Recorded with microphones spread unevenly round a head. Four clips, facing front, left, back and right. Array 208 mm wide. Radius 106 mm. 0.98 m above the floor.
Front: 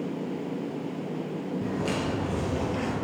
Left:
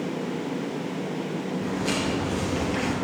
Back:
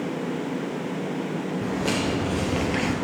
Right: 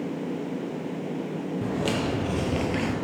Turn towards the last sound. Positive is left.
turn(degrees=-120)